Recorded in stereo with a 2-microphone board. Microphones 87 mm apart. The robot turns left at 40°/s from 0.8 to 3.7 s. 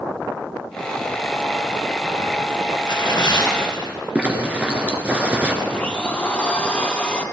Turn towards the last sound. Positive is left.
turn(degrees=15)  # may be behind; listen again after turning